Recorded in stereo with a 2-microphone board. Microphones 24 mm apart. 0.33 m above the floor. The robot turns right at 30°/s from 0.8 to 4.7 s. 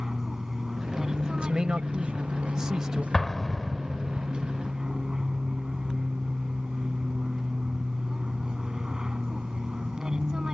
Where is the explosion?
15° left (ahead or behind); by 4.3 s 5° left (ahead or behind).